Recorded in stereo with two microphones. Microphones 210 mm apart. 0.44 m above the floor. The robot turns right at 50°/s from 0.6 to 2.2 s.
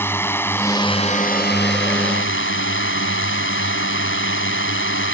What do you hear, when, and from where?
0.0 s a drone: 10° left; by 5.2 s 90° left